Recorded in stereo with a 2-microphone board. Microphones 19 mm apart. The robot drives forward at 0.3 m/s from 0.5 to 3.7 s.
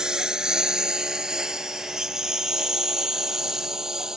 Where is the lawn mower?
45° right (ahead or behind); by 4.2 s 30° right (ahead or behind).